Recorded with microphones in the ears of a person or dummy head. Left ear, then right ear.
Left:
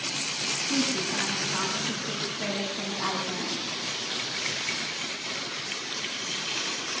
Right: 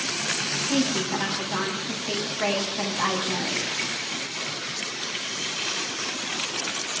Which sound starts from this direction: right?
A woman speaking, at 0.7 s.